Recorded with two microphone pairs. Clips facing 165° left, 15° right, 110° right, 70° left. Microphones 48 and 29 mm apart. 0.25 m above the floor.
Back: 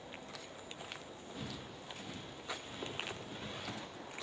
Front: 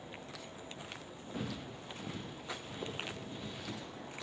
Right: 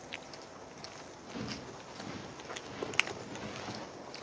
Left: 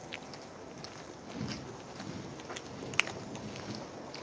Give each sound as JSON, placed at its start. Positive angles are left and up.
{"t": 1.3, "sound": "footsteps", "azimuth_deg": -50, "distance_m": 1.1}